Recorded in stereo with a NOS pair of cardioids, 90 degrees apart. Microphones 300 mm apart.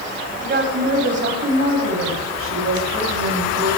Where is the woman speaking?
35° right, 9 m; by 3.7 s 55° right, 8.5 m.